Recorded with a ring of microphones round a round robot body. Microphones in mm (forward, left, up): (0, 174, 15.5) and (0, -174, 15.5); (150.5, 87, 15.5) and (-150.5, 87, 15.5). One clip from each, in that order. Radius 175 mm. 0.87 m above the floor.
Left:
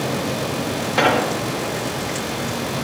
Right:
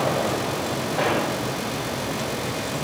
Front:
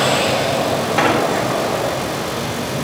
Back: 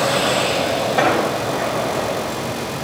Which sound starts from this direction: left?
An explosion, at 1.0 s.